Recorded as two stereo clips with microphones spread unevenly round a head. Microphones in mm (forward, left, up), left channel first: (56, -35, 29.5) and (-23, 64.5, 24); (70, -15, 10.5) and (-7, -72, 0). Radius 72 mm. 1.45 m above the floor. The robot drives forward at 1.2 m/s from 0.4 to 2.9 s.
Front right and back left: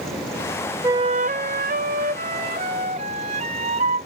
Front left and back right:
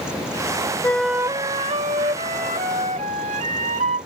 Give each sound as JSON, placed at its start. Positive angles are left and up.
{"t": 0.8, "sound": "a flute", "azimuth_deg": 75}